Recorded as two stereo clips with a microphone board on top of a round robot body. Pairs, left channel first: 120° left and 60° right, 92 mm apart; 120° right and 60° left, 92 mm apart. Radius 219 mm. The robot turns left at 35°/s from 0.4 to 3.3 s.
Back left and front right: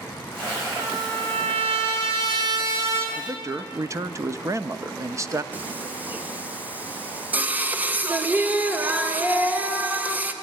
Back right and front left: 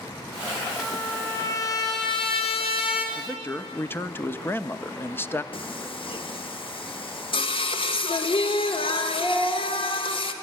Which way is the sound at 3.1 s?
70° right.